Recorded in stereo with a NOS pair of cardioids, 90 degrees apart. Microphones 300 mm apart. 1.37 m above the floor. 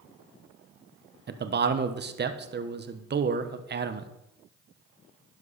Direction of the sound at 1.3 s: 35° right.